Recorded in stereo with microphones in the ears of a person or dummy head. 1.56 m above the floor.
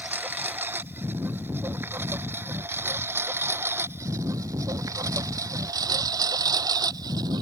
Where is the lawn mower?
15° right (ahead or behind); by 7.4 s 25° right (ahead or behind).